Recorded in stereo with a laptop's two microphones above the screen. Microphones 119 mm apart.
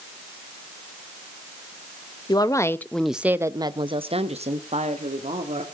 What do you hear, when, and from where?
2.3 s a woman speaking: 35° left (ahead or behind), 0.9 m; by 5.6 s 75° right (ahead or behind), 1.7 m